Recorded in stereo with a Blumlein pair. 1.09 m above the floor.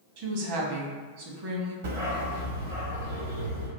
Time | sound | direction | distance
0.2 | a woman speaking | 50° right | 1.2 m
1.8 | a dog barking | 65° right | 1.7 m